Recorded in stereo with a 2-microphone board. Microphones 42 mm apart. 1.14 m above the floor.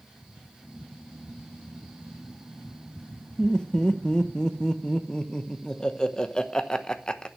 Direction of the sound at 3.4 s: 25° left (ahead or behind).